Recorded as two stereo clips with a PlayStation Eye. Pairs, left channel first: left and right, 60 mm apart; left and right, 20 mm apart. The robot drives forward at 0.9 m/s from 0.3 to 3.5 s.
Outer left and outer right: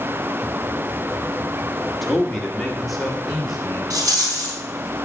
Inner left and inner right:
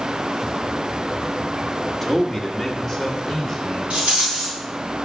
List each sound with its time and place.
2.0 s a man speaking: centre (ahead or behind), 1.5 m
3.9 s a rattle: 80° right, 3.5 m